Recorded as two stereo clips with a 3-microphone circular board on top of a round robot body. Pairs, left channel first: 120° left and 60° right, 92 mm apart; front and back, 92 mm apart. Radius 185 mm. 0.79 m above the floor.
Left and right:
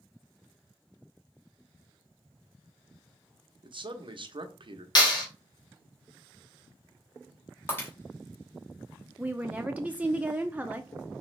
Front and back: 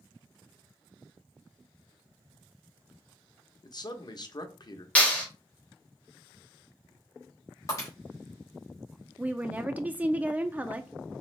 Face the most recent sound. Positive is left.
turn(degrees=-120)